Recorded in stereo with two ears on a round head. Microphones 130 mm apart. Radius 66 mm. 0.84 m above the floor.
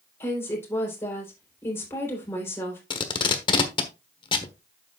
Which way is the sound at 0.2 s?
15° left (ahead or behind).